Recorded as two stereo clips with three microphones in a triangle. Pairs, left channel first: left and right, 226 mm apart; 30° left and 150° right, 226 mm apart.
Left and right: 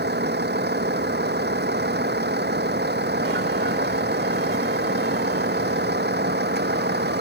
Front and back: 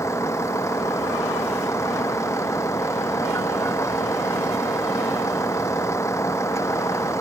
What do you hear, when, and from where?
0.0 s a vehicle: 50° right